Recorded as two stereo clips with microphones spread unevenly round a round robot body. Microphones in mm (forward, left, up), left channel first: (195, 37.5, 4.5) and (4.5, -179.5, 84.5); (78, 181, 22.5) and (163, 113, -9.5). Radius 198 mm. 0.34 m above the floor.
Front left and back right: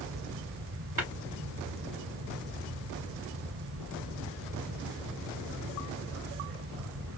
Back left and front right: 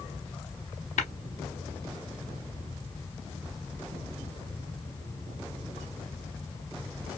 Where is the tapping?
145° left, 0.6 m.